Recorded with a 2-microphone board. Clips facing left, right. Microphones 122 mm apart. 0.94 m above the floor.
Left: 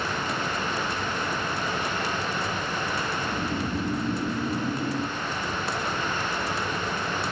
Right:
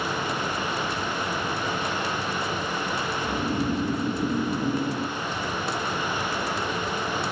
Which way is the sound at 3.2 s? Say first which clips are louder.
Right 3 dB; 45° right (ahead or behind).